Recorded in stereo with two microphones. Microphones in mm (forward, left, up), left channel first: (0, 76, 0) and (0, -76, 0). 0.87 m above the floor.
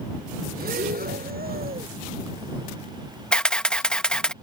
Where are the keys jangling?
I don't hear keys jangling.